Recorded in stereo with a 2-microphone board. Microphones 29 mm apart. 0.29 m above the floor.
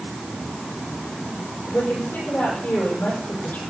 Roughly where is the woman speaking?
Left.